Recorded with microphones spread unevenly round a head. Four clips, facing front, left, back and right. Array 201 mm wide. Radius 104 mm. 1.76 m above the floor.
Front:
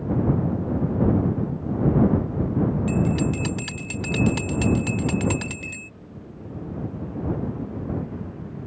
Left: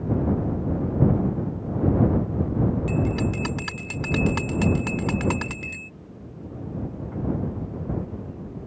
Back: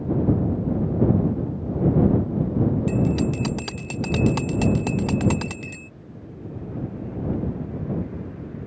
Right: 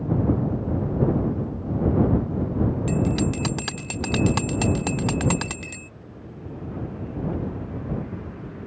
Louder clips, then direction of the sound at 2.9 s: Right 2 dB, back 1 dB; 135° right.